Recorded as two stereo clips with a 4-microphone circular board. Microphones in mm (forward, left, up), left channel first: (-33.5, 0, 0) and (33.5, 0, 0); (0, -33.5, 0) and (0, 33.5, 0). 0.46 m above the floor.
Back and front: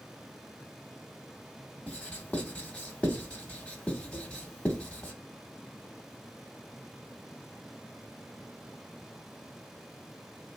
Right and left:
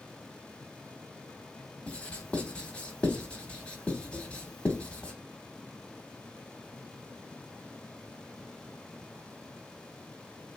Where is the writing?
135° right, 0.9 m.